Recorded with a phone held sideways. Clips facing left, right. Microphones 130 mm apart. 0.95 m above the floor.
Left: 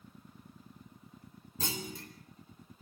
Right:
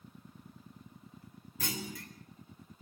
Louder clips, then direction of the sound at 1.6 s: Even; 30° left (ahead or behind).